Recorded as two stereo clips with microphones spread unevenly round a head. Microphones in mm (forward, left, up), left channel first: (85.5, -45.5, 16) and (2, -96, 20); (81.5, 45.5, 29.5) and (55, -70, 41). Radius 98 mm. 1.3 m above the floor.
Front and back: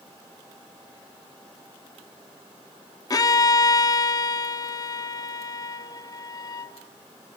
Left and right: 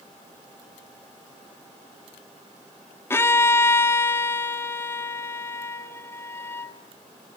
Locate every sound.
3.1 s a violin: 15° left, 0.9 m